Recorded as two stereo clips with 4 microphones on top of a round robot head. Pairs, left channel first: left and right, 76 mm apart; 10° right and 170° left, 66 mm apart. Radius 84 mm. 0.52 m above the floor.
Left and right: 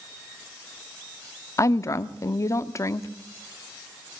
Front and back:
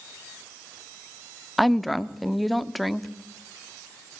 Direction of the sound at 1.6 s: 80° left.